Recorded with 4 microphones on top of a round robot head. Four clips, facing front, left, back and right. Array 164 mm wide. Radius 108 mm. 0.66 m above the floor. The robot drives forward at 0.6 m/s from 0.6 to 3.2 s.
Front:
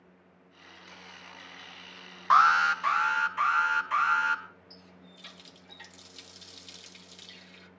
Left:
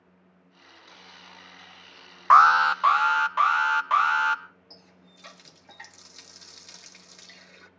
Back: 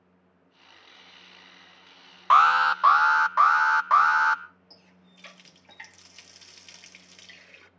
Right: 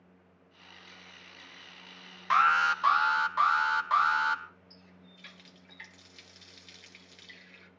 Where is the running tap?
115° left, 0.9 m.